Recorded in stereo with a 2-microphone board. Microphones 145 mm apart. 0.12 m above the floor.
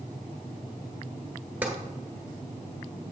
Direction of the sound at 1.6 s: 10° right (ahead or behind).